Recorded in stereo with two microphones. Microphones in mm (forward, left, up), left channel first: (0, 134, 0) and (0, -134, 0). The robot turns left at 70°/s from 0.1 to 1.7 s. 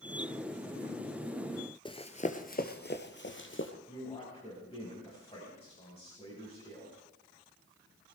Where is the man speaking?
20° left (ahead or behind), 5 m.